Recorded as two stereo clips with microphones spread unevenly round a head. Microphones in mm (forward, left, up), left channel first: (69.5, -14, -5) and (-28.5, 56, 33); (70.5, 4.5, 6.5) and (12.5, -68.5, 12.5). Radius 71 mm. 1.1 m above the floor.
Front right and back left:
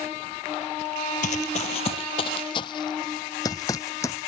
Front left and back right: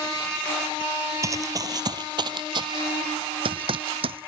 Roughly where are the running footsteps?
Right.